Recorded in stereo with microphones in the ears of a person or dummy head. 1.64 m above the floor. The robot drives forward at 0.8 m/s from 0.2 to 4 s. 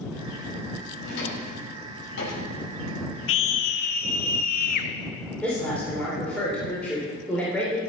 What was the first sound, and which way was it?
A drawer, 70° left (ahead or behind).